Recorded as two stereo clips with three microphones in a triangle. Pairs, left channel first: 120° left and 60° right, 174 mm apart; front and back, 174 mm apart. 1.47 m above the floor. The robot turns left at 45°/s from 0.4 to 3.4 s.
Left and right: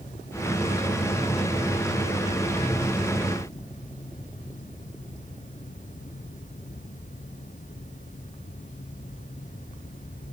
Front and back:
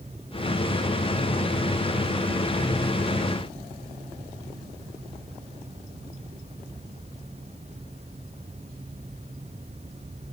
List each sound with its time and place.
Only background noise.